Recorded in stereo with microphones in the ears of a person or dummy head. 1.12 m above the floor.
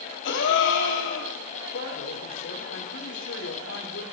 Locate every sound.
0.2 s a gasp: 65° left (ahead or behind), 2.5 m
1.7 s a man speaking: 60° left (ahead or behind), 4 m